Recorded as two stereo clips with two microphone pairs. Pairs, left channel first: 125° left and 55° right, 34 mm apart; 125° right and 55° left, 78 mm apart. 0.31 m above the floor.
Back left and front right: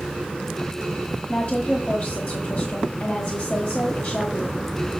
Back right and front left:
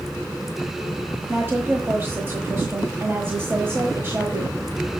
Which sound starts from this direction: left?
A woman speaking, at 1.3 s.